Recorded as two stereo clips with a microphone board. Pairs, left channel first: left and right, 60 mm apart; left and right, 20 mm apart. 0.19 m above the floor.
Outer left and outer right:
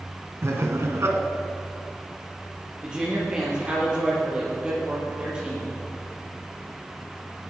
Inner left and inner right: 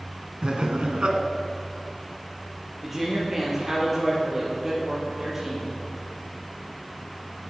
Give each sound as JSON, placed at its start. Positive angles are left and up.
{"t": 0.4, "sound": "laughter", "side_deg": -50, "distance_m": 1.6}
{"t": 2.8, "sound": "a woman speaking", "side_deg": -15, "distance_m": 6.0}